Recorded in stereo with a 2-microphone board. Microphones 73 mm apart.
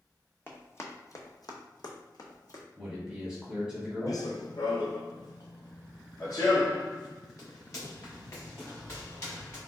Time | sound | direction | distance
0.5 | running footsteps | 30° left (ahead or behind) | 0.8 m
2.8 | a man speaking | centre (ahead or behind) | 1.3 m
4.1 | running footsteps | 55° left (ahead or behind) | 0.6 m